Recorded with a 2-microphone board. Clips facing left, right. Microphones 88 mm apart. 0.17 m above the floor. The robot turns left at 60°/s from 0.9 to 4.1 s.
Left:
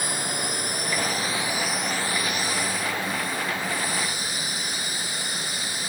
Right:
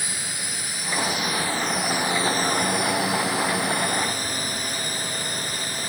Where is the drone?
55° left; by 5.9 s 140° right.